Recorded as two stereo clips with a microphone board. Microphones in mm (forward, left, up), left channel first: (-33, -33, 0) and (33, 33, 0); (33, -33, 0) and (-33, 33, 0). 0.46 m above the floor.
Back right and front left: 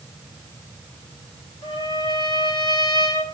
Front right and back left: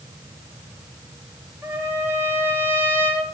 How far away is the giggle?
No giggle in this recording.